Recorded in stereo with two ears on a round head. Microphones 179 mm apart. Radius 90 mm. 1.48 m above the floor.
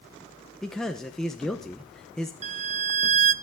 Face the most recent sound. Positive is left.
turn(degrees=-35)  # may be behind; listen again after turning